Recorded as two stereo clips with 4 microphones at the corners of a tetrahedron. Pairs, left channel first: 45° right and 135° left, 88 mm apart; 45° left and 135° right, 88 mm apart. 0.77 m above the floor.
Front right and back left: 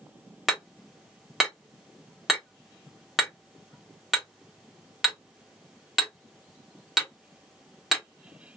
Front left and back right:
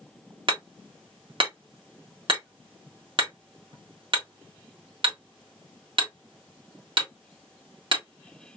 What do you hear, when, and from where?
0.5 s hammering: 140° right, 1.5 m